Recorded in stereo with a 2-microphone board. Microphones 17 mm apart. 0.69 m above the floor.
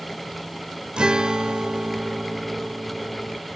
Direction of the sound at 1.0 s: 65° right (ahead or behind).